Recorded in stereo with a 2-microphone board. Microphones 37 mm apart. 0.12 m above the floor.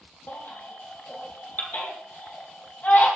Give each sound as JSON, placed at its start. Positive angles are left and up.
{"t": 0.3, "sound": "a baby crying", "side_deg": 60, "distance_m": 3.0}